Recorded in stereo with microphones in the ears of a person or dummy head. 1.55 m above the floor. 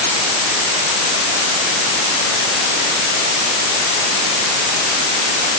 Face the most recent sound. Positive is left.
No sound to turn to.